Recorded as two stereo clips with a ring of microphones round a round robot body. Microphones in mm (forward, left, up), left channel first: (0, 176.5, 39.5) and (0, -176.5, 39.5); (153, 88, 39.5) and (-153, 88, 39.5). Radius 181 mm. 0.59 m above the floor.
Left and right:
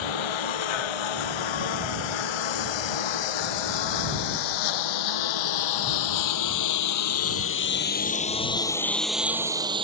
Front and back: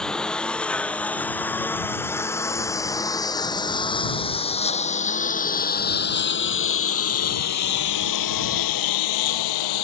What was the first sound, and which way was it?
A lawn mower, 90° left.